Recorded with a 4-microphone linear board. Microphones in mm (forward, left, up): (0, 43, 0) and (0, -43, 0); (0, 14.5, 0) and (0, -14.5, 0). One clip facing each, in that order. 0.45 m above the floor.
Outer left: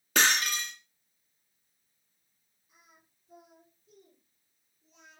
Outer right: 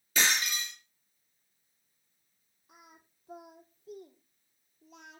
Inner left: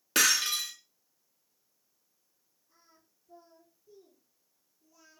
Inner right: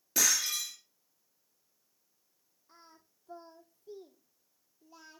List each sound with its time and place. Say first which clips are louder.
0.1 s breaking glass: outer left 3 dB, inner left 4 dB; 70° left (ahead or behind), 3 m
2.7 s singing: outer right 6 dB, inner right 7 dB; 75° right (ahead or behind), 3 m